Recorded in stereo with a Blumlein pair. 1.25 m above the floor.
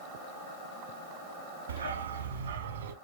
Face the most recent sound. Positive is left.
turn(degrees=-60)